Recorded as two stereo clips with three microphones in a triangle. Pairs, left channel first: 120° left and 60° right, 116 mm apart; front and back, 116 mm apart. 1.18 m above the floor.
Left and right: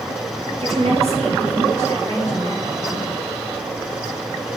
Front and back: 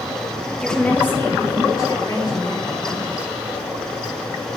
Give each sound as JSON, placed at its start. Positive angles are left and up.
{"t": 0.6, "sound": "a woman speaking", "azimuth_deg": -85, "distance_m": 1.7}